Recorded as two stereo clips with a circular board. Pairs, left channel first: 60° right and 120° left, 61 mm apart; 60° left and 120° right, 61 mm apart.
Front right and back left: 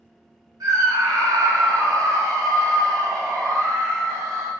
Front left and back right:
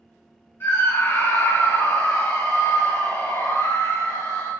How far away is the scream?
About 3 m.